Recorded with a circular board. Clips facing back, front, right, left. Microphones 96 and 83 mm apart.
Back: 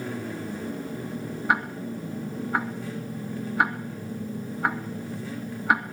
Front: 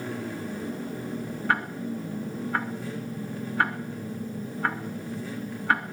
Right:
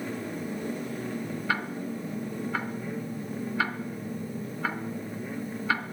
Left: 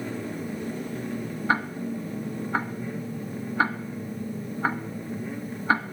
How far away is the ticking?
About 1.4 m.